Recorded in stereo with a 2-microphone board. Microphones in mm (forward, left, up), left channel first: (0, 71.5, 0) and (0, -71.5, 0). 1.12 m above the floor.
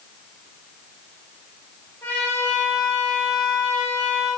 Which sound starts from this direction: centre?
A trumpet, at 2.0 s.